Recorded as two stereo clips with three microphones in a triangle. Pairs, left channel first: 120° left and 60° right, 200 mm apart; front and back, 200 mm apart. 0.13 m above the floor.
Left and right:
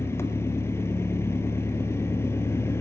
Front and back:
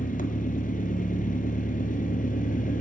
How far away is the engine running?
About 0.9 m.